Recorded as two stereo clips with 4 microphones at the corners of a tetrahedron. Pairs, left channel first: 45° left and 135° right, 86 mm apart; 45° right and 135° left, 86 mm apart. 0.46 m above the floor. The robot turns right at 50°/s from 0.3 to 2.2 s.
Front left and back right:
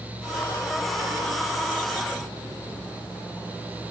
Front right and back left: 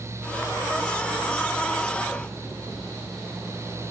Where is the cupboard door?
No cupboard door in this recording.